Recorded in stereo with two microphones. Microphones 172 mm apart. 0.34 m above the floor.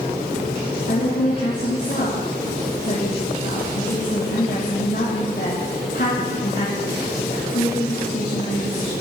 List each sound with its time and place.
0.9 s a woman speaking: 70° left (ahead or behind), 4.5 m